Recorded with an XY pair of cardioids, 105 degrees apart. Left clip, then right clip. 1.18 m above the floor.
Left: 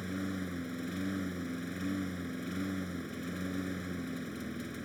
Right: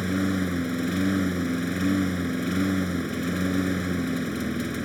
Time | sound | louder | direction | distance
0.0 | a lawn mower | right 12 dB | 70° right | ?